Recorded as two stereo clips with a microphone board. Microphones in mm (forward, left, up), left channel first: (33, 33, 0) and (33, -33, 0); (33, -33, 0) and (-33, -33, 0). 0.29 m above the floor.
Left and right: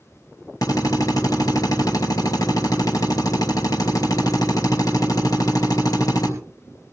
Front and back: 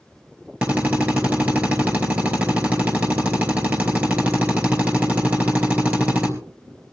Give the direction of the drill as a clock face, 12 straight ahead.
8 o'clock.